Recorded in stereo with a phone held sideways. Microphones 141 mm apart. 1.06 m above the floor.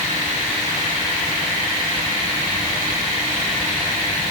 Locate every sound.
Only background noise.